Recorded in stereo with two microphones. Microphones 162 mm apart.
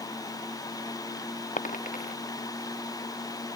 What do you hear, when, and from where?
1.6 s a dropped coin: 55° left (ahead or behind)